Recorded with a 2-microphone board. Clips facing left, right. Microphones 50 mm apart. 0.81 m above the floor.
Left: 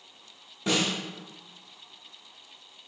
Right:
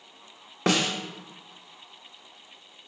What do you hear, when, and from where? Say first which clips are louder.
0.7 s a snare drum: right 3 dB; 70° right (ahead or behind), 0.6 m